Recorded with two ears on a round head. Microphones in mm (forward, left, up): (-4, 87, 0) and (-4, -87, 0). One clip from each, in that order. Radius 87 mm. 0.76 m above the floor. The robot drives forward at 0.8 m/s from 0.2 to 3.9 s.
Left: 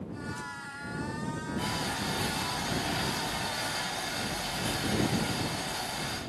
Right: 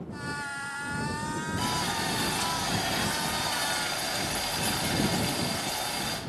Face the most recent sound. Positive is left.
turn(degrees=-45)  # may be behind; listen again after turning